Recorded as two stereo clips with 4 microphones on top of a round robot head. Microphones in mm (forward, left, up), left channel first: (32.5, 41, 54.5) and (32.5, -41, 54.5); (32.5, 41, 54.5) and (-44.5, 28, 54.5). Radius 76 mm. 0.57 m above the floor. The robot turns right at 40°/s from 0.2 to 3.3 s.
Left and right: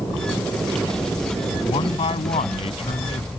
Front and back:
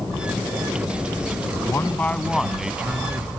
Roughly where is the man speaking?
Ahead left.